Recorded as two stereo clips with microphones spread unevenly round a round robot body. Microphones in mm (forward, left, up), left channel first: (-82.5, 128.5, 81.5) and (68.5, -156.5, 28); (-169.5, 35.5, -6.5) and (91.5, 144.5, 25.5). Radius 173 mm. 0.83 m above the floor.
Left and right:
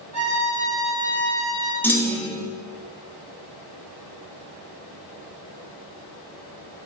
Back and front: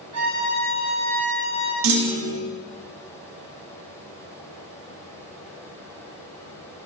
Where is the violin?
45° left, 4 m.